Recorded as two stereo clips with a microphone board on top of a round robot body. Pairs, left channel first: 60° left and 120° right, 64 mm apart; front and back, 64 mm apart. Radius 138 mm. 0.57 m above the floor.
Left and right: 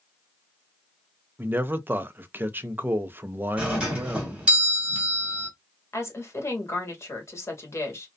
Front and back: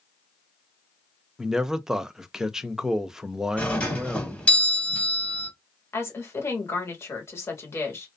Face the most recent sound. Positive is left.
turn(degrees=35)